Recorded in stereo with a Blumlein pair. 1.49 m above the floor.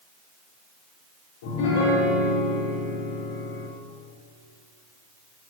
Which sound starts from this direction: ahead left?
A piano, at 1.4 s.